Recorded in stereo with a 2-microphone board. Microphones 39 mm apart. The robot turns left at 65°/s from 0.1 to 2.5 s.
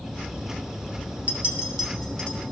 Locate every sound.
1.3 s a clink: 45° right (ahead or behind), 1.3 m; by 2.4 s 25° left (ahead or behind), 1.3 m